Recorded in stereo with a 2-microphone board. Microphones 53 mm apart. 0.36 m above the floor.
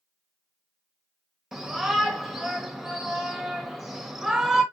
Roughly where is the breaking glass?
No breaking glass in this recording.